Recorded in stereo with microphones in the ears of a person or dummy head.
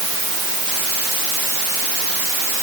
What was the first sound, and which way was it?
Only background noise.